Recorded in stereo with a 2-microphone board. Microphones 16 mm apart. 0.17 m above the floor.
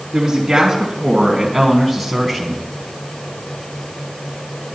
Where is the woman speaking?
35° right (ahead or behind), 1.8 m; by 2.6 s 15° left (ahead or behind), 1.5 m.